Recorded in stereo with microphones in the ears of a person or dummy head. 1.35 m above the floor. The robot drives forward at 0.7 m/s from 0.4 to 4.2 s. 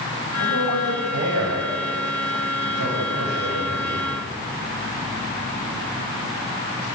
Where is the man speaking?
90° right, 6.5 m; by 4.1 s 65° right (ahead or behind), 7 m.